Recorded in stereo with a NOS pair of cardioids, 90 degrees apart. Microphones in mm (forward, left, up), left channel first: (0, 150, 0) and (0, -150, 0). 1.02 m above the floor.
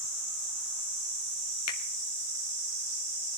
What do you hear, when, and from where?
1.7 s a finger snap: 60° left, 1.6 m